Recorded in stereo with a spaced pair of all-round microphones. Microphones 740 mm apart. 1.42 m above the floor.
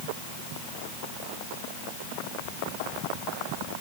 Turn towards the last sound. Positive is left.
No sound to turn to.